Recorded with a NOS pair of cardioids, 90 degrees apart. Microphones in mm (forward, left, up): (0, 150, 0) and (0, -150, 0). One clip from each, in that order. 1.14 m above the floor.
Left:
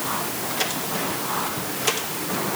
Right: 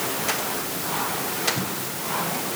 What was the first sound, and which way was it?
Only background noise.